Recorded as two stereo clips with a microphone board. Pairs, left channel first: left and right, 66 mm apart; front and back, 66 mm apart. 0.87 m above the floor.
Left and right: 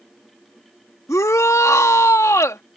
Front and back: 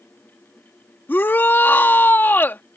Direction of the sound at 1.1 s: 55° left.